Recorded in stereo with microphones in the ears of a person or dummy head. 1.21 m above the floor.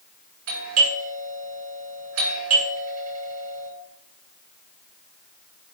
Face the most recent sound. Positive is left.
turn(degrees=-75)  # may be behind; listen again after turning